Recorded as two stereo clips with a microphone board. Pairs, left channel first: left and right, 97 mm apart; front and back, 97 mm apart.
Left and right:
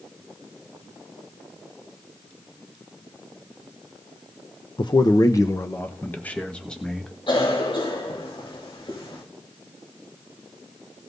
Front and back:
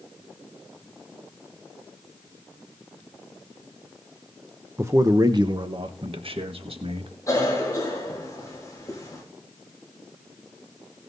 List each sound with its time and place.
4.8 s a man speaking: 120° left, 0.9 m; by 7.1 s 175° left, 1.8 m
7.3 s a cough: 60° left, 3.5 m